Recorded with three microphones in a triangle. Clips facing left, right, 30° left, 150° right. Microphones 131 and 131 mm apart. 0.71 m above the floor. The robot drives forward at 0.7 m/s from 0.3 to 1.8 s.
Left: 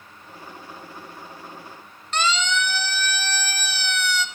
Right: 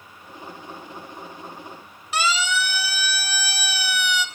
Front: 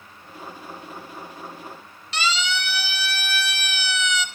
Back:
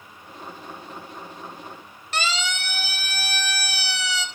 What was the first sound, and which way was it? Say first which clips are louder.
A siren: even, front 2 dB; 170° right.